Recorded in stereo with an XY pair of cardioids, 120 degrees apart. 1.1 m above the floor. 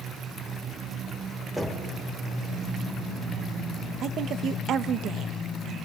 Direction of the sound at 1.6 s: 10° right.